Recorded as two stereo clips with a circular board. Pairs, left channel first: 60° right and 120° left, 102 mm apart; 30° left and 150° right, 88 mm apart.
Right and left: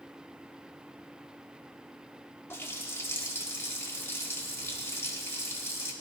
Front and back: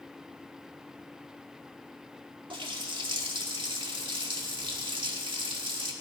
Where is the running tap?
125° right, 1.6 m.